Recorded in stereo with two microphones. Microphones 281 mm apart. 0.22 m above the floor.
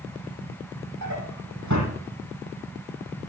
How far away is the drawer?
About 5 m.